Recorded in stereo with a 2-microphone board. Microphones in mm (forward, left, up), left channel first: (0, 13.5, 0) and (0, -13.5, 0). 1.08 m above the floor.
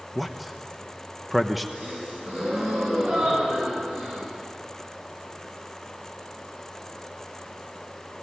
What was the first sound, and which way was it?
A man speaking, 5° right (ahead or behind).